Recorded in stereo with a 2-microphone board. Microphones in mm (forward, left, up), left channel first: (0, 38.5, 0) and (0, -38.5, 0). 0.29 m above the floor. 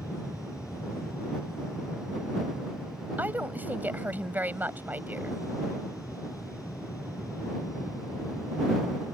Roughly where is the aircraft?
Left.